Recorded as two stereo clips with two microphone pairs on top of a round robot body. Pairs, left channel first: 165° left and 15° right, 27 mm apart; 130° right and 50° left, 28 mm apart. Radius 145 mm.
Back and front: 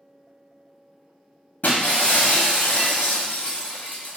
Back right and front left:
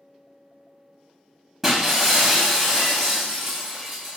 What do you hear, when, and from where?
1.6 s breaking glass: 140° left, 0.7 m